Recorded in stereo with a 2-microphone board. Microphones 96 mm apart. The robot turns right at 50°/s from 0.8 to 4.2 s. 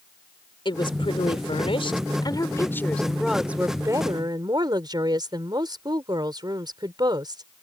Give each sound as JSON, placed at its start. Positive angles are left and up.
{"t": 0.7, "sound": "a woman speaking", "azimuth_deg": 60}